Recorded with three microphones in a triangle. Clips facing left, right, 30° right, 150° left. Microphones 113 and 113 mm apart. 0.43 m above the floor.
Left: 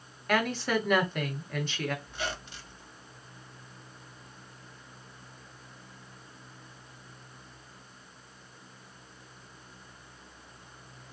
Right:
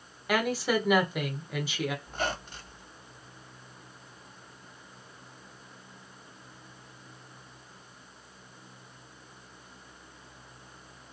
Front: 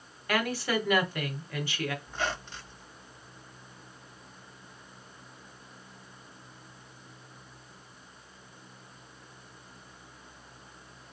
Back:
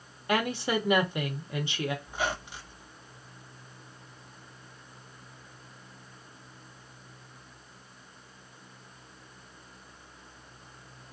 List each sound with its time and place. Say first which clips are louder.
0.3 s a woman speaking: right 1 dB, back 1 dB; 165° right, 0.9 m
2.0 s a squeak: right 4 dB, back 1 dB; 130° right, 0.6 m